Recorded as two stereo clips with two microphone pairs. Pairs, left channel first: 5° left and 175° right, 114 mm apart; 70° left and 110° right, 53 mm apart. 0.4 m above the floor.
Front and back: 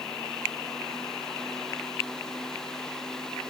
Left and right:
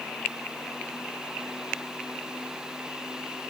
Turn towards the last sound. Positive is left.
No sound to turn to.